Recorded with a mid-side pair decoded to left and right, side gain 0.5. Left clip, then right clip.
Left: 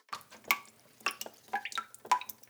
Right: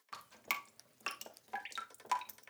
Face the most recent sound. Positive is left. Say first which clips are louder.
# left 7 dB
turn(degrees=45)